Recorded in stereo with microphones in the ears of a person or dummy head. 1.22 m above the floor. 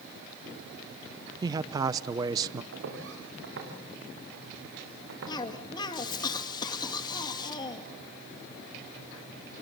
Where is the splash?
No splash in this recording.